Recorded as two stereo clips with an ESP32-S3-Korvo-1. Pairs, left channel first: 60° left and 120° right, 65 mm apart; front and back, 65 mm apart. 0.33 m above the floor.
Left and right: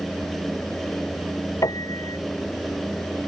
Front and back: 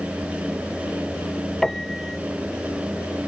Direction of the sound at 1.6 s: 85° left.